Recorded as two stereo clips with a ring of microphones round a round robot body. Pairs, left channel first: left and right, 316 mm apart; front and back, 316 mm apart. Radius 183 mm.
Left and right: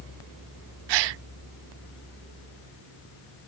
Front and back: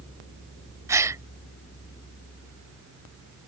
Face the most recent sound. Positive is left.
turn(degrees=-100)